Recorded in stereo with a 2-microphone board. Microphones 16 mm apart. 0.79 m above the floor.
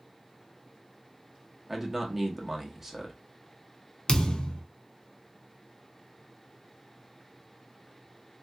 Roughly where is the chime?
I don't hear a chime.